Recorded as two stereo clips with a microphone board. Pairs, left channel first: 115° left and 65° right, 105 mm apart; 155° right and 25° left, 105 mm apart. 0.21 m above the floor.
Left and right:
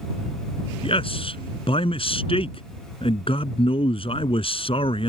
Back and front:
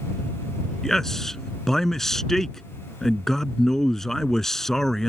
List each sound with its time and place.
0.8 s a man speaking: 115° left